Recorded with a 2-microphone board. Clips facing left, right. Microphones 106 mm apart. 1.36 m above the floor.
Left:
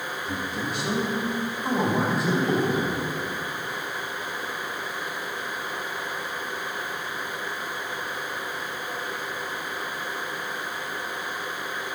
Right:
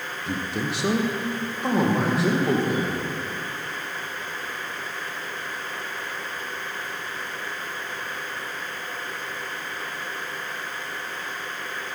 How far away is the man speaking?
About 0.7 m.